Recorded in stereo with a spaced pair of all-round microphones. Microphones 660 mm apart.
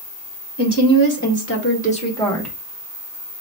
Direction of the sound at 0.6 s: 40° left (ahead or behind).